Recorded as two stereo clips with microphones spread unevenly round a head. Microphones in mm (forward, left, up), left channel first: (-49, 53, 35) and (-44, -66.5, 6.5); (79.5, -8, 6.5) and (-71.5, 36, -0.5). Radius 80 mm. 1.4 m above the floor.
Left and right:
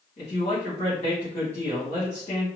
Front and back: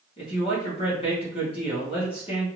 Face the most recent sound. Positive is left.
turn(degrees=40)